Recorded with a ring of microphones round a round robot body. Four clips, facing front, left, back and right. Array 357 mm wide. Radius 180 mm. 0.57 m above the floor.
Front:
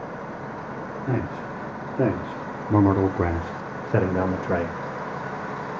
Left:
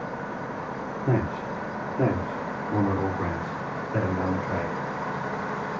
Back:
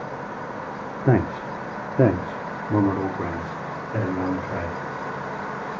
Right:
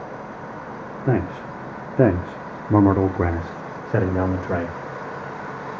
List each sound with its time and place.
1.1 s a man speaking: 155° right, 1.4 m; by 4.8 s 40° right, 2.5 m